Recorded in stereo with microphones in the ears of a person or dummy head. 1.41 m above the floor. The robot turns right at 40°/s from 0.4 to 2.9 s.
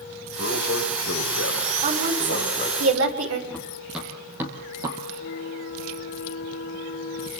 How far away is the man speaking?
About 6.5 m.